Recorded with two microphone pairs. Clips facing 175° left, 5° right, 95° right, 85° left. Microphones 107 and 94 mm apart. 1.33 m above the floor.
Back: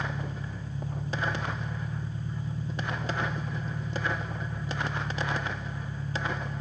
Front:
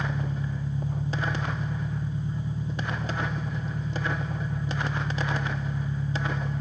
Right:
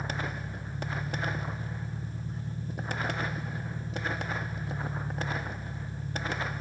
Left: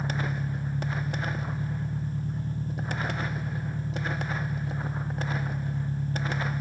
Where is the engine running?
65° left, 1.9 m.